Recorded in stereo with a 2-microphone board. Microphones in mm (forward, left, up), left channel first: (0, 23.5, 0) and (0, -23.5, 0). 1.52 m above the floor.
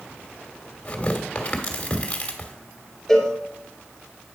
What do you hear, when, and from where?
0.8 s tearing paper: 30° left (ahead or behind), 1.4 m
3.1 s a cowbell: 10° left (ahead or behind), 3 m